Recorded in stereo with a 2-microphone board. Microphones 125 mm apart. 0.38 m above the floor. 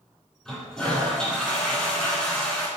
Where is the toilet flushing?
5° left (ahead or behind), 5 m.